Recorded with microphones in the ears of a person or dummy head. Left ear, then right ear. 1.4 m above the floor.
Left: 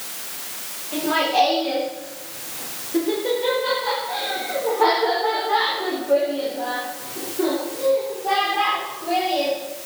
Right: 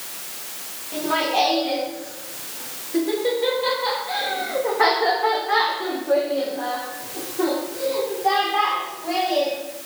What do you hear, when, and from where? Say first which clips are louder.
0.9 s laughter: left 2 dB; 5° left (ahead or behind), 4 m; by 9.6 s 60° right (ahead or behind), 5 m